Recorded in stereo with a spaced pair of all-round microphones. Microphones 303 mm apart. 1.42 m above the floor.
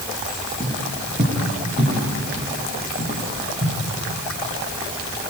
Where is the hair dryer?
I don't hear a hair dryer.